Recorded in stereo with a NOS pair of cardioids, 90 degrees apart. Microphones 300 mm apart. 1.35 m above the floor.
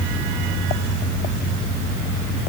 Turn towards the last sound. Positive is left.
No sound to turn to.